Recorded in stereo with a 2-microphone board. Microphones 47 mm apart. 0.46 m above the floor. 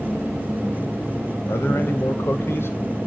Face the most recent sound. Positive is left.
turn(degrees=55)  # may be behind; listen again after turning